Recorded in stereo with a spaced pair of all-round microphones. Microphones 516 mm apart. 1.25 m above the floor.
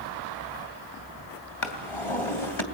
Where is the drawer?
65° left (ahead or behind), 3 m.